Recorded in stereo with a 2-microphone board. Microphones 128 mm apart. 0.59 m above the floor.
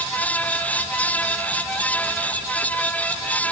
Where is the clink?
I don't hear a clink.